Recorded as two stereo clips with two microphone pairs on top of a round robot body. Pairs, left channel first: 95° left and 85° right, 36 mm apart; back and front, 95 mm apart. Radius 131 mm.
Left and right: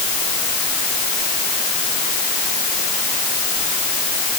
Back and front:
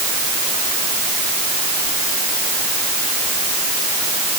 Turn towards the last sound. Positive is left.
No sound to turn to.